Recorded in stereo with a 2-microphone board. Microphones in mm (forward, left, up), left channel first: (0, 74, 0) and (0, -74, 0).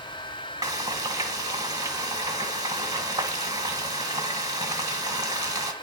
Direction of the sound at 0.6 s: 25° right (ahead or behind).